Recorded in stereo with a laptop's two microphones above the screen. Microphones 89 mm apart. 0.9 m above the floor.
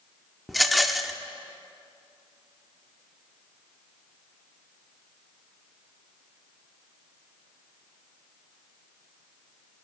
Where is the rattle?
Centre (ahead or behind), 0.6 m.